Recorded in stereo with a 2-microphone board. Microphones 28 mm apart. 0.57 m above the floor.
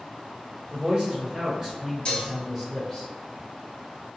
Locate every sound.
0.7 s a man speaking: 35° right (ahead or behind), 1.6 m; by 3.0 s 10° left (ahead or behind), 1.2 m
2.0 s dishes clattering: 40° left (ahead or behind), 0.9 m